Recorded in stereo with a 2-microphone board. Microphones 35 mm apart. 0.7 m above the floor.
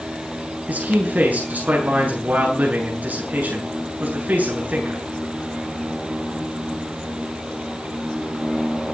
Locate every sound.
0.7 s a man speaking: 50° right (ahead or behind), 8 m